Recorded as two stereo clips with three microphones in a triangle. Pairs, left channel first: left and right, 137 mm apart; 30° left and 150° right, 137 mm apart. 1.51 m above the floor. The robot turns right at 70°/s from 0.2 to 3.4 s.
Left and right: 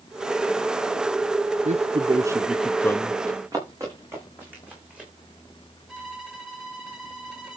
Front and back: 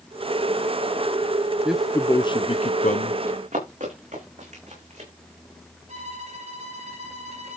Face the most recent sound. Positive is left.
turn(degrees=-175)